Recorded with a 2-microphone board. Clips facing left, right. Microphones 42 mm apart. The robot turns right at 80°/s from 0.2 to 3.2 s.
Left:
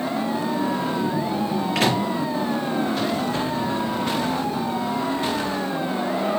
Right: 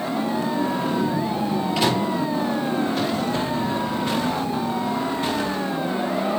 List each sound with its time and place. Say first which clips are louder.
1.8 s a microwave: left 1 dB; 75° left (ahead or behind), 4.5 m; by 2.0 s 55° left (ahead or behind), 4.5 m